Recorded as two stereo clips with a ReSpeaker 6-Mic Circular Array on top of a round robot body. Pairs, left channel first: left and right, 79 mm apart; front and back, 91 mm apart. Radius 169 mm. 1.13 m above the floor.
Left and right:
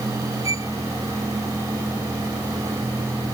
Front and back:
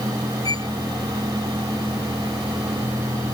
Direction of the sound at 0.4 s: 45° right.